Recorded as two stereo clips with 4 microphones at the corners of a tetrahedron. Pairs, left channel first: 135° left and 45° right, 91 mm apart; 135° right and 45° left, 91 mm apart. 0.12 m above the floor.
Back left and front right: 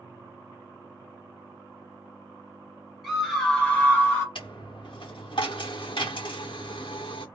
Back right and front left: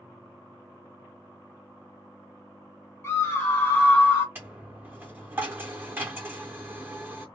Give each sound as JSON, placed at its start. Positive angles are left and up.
{"t": 3.0, "sound": "a scream", "azimuth_deg": -130, "distance_m": 1.6}
{"t": 4.3, "sound": "a dropped coin", "azimuth_deg": 110, "distance_m": 0.6}